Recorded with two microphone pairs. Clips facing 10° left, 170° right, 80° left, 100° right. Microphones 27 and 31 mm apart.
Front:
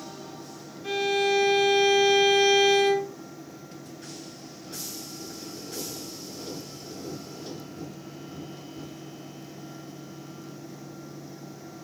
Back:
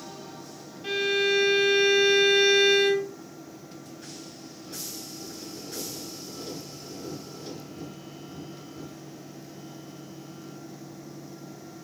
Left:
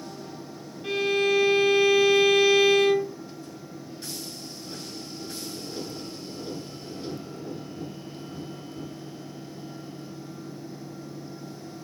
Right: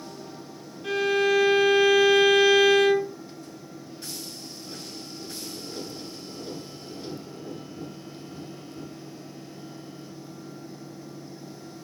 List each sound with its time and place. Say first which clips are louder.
0.8 s a violin: even, right 1 dB; 160° left, 2.5 m